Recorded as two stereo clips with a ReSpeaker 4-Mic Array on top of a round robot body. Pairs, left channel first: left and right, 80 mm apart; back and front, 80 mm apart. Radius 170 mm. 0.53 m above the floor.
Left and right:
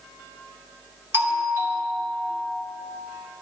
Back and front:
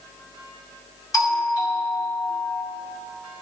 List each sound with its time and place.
1.1 s a doorbell: 145° right, 2 m